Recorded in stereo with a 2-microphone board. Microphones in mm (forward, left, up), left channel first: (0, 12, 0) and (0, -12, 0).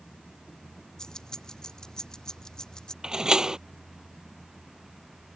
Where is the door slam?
30° right (ahead or behind).